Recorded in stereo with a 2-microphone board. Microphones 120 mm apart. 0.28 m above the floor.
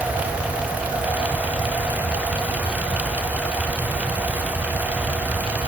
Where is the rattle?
No rattle in this recording.